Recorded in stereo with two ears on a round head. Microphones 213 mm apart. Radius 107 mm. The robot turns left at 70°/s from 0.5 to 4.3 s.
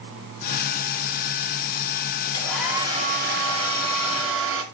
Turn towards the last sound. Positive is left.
turn(degrees=-120)